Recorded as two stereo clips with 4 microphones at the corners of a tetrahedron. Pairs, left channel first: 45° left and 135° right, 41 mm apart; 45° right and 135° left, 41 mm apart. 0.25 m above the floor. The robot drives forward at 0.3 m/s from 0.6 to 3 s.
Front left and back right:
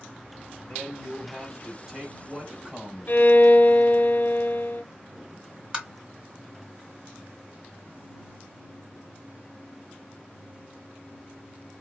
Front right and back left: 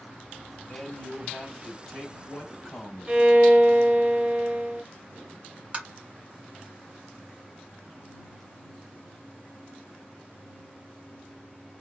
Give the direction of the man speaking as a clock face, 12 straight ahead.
1 o'clock.